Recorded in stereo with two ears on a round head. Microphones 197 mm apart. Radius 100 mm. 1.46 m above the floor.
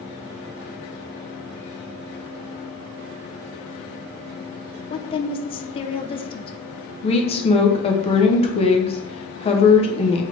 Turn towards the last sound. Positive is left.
turn(degrees=30)  # may be behind; listen again after turning